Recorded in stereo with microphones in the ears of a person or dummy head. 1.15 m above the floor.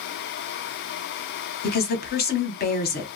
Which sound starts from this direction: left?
A woman speaking, at 1.6 s.